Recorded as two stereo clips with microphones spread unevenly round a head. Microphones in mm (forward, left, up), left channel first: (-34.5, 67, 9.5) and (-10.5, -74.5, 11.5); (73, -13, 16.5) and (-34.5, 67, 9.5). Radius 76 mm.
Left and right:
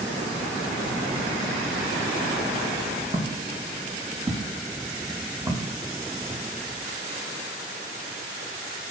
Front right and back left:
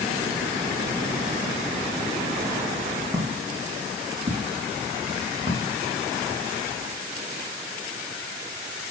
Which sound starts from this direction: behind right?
Footsteps, at 3.1 s.